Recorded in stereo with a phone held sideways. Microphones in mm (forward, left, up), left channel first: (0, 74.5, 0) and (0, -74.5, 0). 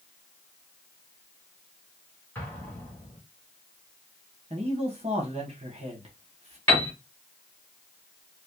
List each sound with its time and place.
2.4 s an explosion: 15° left (ahead or behind), 2.5 m
4.5 s a man speaking: 45° right (ahead or behind), 1.4 m
6.7 s a piano: 15° left (ahead or behind), 3 m